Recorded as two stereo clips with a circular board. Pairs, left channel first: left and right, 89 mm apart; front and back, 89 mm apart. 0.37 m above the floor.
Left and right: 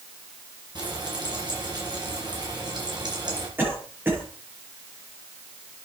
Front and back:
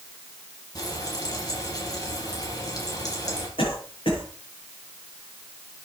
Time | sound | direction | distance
0.8 | frying | 50° right | 5.5 m
3.6 | a cough | 20° right | 8.5 m